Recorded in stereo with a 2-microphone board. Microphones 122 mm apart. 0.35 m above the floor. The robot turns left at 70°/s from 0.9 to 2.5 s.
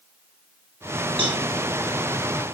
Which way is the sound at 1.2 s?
55° right (ahead or behind).